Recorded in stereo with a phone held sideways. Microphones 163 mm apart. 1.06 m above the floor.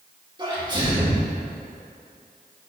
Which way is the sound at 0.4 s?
30° right (ahead or behind).